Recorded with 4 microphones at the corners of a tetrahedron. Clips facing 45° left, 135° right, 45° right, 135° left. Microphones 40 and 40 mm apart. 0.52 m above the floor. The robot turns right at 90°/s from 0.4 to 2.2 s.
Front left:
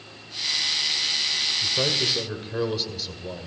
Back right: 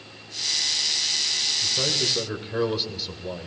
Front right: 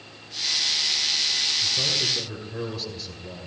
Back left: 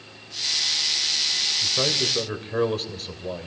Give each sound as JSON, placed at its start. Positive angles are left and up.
{"t": 1.6, "sound": "a man speaking", "azimuth_deg": 95, "distance_m": 2.0}